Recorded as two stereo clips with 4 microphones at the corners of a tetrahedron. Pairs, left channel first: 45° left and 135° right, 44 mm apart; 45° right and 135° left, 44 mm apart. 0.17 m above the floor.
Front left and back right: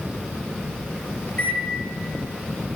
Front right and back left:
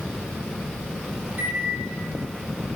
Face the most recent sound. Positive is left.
turn(degrees=85)